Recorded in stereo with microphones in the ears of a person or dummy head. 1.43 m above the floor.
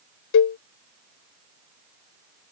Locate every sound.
0.3 s a cowbell: 60° left (ahead or behind)